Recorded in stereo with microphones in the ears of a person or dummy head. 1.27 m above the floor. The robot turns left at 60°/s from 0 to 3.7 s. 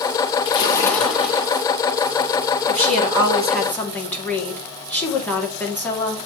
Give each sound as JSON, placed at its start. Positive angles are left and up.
{"t": 0.5, "sound": "a splash", "azimuth_deg": 40, "distance_m": 1.9}
{"t": 2.7, "sound": "a woman speaking", "azimuth_deg": -130, "distance_m": 2.0}